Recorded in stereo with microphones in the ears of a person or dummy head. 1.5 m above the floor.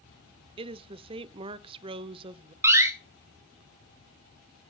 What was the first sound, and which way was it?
A woman speaking, 30° right (ahead or behind).